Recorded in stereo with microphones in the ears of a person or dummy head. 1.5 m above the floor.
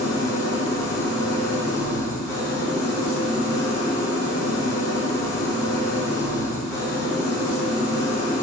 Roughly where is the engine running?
Left.